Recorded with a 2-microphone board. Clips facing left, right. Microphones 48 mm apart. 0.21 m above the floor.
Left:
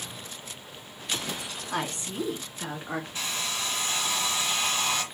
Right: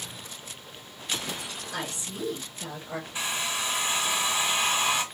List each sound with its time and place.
1.7 s a woman speaking: 45° left (ahead or behind), 2.5 m
3.1 s a hair dryer: 20° right (ahead or behind), 2 m